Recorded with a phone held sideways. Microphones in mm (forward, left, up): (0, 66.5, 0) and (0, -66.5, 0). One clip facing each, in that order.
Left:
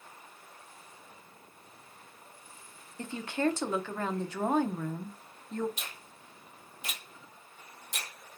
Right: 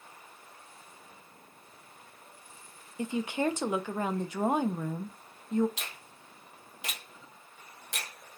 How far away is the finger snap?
About 1.0 m.